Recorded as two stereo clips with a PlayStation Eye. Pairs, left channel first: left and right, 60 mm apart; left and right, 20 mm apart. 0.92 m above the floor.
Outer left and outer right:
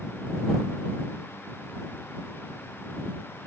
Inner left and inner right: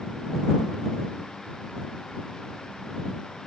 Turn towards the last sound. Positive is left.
No sound to turn to.